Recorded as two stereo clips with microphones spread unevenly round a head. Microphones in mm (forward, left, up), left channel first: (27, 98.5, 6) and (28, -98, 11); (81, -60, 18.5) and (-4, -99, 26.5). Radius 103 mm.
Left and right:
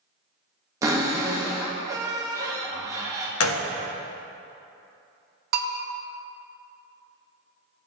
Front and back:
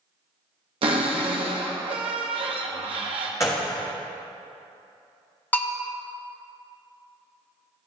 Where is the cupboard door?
160° right, 0.8 m.